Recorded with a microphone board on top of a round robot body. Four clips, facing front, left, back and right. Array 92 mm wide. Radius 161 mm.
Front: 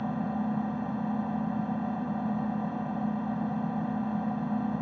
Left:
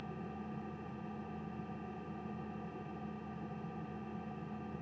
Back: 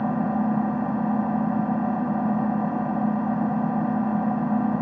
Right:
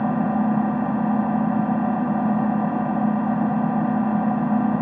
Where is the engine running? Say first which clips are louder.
Right 25 dB, back 7 dB; 120° right.